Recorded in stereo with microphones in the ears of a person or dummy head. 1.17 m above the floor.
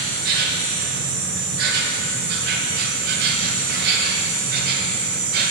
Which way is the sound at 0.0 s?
55° right (ahead or behind).